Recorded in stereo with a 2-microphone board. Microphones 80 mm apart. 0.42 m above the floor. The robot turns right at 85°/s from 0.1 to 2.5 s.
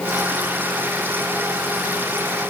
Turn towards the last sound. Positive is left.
No sound to turn to.